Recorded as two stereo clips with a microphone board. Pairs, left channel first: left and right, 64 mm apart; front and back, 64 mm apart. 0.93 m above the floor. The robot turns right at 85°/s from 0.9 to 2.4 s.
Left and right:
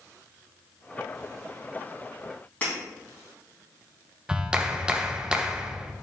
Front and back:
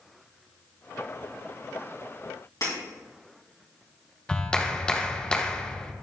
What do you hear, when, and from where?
2.6 s breaking glass: 25° left, 3 m
4.3 s a clap: 45° right, 0.5 m